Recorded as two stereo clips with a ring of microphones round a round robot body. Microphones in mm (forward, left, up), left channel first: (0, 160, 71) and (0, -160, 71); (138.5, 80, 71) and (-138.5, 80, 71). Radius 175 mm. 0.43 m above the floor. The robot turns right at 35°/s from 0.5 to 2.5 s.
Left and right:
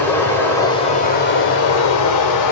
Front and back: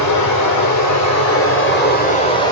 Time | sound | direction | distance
0.0 | running water | 5° left | 1.3 m